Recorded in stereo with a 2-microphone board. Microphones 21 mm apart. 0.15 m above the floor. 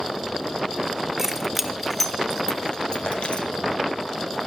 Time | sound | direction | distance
1.2 | keys jangling | 15° right (ahead or behind) | 1.7 m
3.1 | tapping | 65° left (ahead or behind) | 5.5 m